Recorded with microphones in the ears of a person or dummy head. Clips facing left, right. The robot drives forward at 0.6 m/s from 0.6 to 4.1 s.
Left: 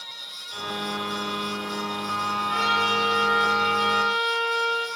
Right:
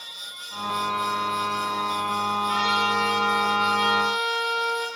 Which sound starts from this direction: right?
A trumpet, at 2.5 s.